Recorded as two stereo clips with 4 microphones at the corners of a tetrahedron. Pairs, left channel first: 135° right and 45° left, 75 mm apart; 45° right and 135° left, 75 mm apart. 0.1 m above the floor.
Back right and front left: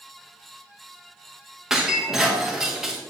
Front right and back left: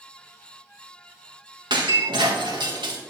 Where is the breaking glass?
130° left, 3.5 m.